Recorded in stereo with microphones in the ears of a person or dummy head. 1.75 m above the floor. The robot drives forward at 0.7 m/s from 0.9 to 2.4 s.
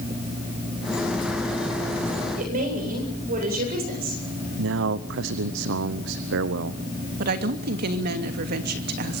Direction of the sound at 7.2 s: 55° right (ahead or behind).